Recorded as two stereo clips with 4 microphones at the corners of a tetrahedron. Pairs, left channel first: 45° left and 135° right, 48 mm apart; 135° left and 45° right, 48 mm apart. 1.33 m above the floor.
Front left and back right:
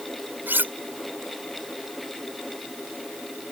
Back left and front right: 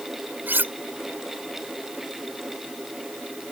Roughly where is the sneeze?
I don't hear a sneeze.